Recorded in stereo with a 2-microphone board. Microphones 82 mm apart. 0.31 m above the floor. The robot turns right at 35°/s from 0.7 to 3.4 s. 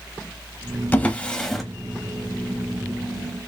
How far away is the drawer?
About 0.6 m.